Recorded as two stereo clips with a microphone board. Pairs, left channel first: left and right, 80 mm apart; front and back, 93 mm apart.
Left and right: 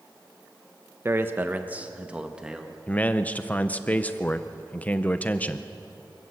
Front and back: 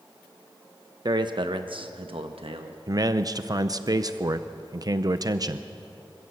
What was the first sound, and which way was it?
A man speaking, 145° right.